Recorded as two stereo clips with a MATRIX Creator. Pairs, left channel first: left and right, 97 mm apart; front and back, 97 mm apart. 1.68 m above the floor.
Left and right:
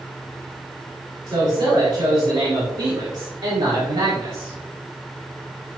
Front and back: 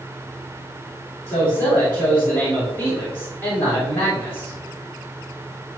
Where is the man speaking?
70° right, 3 m.